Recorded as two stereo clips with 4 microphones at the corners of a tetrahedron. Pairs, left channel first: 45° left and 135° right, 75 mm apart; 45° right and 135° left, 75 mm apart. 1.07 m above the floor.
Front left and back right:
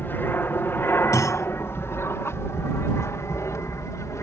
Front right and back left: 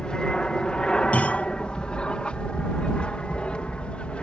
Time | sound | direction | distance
0.0 | an aircraft | 25° left | ?
1.1 | a clunk | 20° left | ?